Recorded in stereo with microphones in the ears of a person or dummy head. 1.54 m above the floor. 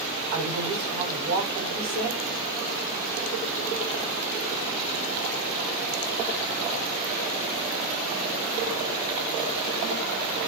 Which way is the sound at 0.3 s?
85° right.